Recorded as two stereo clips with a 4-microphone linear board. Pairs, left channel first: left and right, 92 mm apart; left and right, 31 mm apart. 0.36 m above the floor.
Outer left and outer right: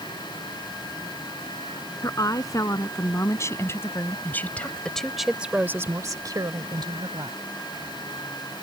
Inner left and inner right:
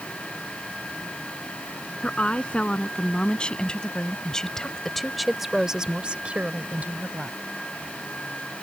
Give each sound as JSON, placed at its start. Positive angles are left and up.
{"t": 2.0, "sound": "a woman speaking", "side_deg": 40}